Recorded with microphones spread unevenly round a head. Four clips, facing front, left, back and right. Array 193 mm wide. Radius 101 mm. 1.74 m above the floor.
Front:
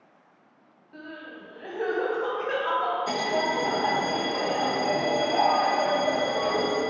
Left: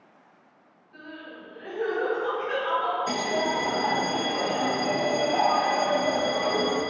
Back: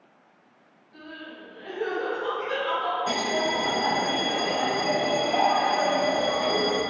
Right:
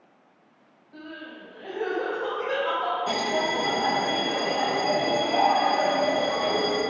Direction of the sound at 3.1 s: 145° right.